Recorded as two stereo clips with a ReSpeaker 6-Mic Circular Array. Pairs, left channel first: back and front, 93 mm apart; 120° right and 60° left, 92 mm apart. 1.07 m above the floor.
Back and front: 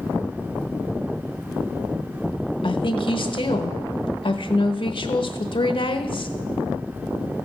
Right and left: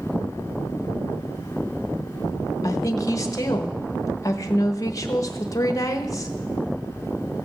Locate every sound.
2.6 s a woman speaking: 170° right, 1.1 m